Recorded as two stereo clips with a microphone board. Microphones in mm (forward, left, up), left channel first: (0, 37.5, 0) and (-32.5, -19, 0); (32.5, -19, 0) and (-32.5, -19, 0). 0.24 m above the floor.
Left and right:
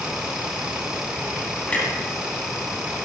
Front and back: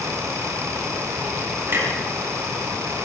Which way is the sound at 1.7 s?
130° left.